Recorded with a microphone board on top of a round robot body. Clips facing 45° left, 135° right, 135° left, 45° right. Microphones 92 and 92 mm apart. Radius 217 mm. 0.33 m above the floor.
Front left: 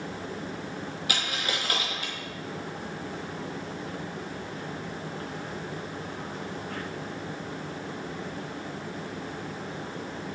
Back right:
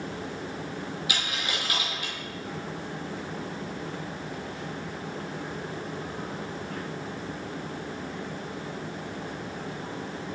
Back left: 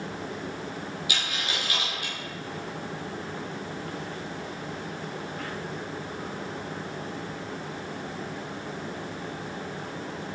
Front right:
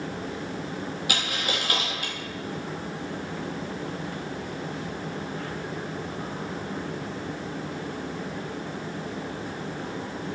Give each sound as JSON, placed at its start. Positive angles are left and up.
{"t": 1.1, "sound": "a dropped coin", "azimuth_deg": -5, "distance_m": 0.7}